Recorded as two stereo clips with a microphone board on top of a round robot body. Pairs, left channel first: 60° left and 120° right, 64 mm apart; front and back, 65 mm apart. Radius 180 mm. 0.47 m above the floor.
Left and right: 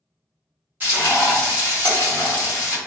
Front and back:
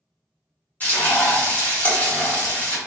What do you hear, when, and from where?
0.8 s frying: 60° right, 1.5 m